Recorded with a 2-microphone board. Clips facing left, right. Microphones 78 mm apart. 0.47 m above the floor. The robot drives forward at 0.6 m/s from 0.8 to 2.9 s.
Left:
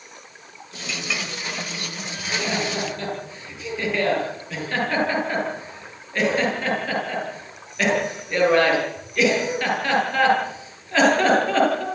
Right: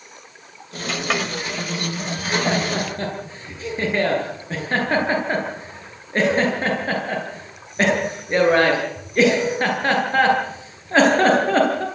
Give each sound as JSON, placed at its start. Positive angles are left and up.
{"t": 0.9, "sound": "a clink", "side_deg": -55, "distance_m": 1.8}
{"t": 2.2, "sound": "laughter", "side_deg": -40, "distance_m": 9.5}